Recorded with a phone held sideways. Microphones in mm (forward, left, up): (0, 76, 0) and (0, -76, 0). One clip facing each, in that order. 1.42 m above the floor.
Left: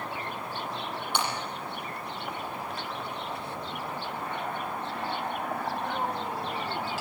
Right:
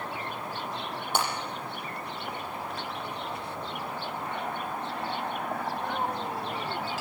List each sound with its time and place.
1.1 s breaking glass: 45° right (ahead or behind), 7.5 m